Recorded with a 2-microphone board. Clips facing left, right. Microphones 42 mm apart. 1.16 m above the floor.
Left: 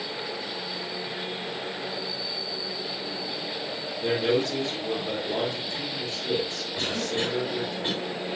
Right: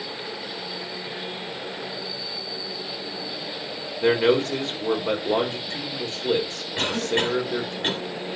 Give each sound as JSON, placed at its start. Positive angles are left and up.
{"t": 4.0, "sound": "a man speaking", "side_deg": -60, "distance_m": 4.0}
{"t": 6.8, "sound": "a cough", "side_deg": -80, "distance_m": 7.5}